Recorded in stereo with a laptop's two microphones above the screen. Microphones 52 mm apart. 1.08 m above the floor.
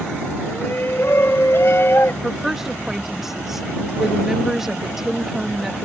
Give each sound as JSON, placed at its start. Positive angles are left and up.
{"t": 0.5, "sound": "a shout", "side_deg": 50}
{"t": 2.2, "sound": "a woman speaking", "side_deg": -10}